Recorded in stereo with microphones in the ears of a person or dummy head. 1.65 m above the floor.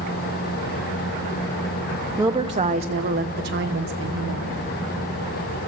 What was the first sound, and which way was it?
A woman speaking, 10° right (ahead or behind).